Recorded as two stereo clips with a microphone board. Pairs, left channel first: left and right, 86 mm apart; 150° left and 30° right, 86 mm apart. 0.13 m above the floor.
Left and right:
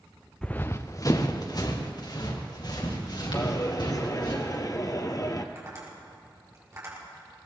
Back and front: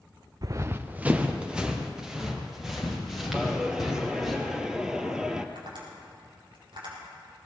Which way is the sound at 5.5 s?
35° right.